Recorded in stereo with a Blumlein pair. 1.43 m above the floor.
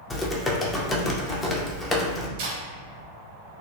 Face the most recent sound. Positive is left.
turn(degrees=-45)